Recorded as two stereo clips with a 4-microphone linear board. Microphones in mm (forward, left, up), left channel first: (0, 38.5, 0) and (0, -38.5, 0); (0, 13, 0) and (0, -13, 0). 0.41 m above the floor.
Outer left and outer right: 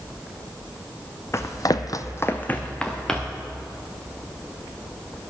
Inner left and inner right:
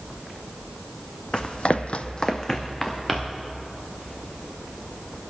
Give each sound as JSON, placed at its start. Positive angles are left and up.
{"t": 1.3, "sound": "running footsteps", "side_deg": 40, "distance_m": 1.1}